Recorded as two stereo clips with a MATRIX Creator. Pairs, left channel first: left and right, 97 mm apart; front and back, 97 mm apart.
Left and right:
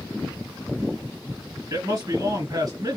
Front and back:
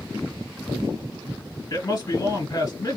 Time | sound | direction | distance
1.7 | a man speaking | 45° right | 2.5 m